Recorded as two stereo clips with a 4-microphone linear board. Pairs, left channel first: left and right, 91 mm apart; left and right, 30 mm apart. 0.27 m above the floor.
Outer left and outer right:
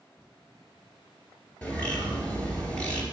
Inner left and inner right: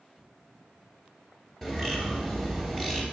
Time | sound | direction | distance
1.6 | a bird | 15° left (ahead or behind) | 2 m